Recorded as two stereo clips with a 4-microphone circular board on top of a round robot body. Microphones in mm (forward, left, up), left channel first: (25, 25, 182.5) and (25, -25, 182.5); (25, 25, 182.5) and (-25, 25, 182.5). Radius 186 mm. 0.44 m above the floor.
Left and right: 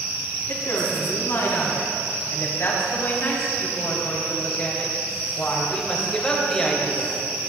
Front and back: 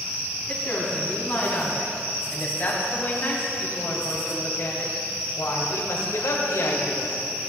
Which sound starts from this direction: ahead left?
A woman speaking, at 0.5 s.